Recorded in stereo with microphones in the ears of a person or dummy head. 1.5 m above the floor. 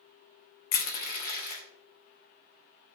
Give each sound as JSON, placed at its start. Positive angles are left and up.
{"t": 0.7, "sound": "crushing", "side_deg": 40, "distance_m": 0.5}